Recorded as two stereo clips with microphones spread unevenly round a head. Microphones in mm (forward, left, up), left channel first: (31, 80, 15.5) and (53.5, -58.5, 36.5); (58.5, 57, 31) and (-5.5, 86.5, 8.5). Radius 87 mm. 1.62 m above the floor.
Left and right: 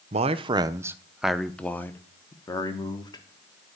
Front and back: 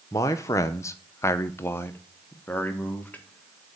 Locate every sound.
0.1 s a man speaking: 60° right, 0.7 m; by 3.8 s 40° left, 1.9 m